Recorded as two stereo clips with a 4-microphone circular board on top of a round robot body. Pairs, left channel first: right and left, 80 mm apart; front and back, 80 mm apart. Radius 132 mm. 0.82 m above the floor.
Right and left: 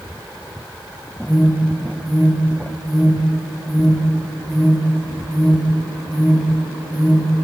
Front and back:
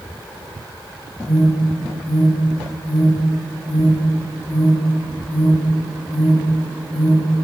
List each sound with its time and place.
1.3 s an alarm: straight ahead, 3.5 m